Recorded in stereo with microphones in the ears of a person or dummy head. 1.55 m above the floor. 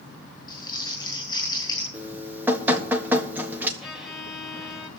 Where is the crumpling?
25° left (ahead or behind), 8 m.